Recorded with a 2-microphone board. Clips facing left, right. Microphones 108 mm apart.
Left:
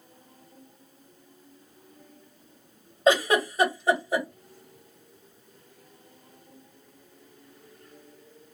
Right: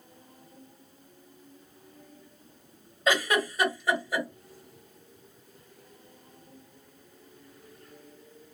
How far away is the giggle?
About 1.4 m.